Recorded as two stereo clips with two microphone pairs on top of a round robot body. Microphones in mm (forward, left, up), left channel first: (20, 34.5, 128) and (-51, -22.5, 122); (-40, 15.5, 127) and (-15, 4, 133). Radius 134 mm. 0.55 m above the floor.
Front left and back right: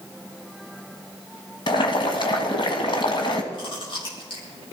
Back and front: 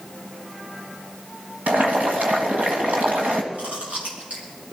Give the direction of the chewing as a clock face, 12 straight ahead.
12 o'clock.